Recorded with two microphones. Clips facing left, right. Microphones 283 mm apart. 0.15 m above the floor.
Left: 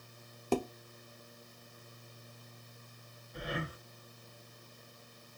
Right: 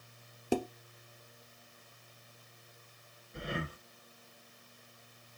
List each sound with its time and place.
0.5 s dishes clattering: 10° right (ahead or behind), 0.8 m
3.3 s breathing: 30° right (ahead or behind), 1.2 m